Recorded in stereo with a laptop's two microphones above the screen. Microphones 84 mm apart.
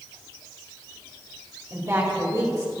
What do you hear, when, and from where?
1.7 s a woman speaking: 40° right (ahead or behind), 3 m